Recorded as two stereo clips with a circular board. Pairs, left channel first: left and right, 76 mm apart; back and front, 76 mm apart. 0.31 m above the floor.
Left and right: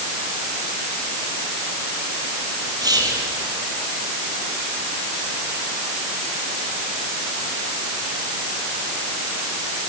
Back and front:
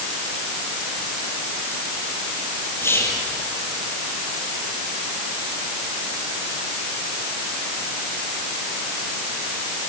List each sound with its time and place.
2.8 s whispering: 120° right, 5.5 m